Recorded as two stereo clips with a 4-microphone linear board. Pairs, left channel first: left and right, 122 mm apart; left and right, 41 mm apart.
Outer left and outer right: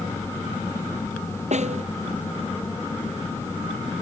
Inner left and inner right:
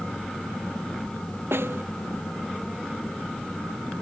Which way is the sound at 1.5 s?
75° right (ahead or behind).